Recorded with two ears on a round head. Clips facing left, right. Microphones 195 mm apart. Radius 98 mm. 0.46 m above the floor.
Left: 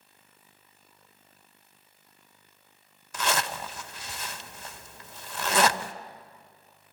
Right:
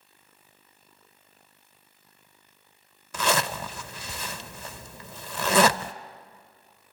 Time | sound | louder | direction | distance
3.1 | a zipper | right 4 dB | 70° right (ahead or behind) | 0.7 m